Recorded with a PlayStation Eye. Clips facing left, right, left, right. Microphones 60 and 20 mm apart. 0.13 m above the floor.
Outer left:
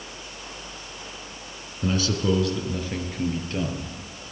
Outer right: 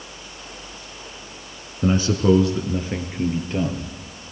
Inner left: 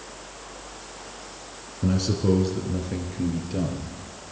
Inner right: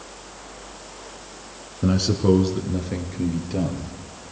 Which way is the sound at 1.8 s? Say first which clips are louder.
Outer right 6 dB, inner right 4 dB; 25° right (ahead or behind).